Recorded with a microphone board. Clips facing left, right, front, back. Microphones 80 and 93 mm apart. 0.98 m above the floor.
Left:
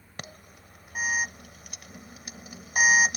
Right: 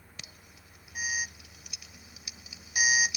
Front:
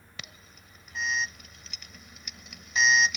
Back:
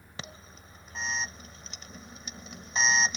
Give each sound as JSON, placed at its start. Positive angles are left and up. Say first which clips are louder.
{"t": 0.2, "sound": "an alarm", "louder": "left 10 dB, back 4 dB", "azimuth_deg": 125}